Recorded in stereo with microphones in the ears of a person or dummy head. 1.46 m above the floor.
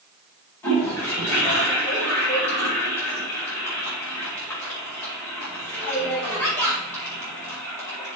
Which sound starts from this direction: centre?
A toilet flushing, at 0.6 s.